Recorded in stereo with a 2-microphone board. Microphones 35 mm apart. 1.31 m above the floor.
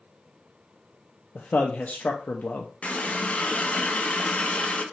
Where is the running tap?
45° left (ahead or behind), 0.7 m.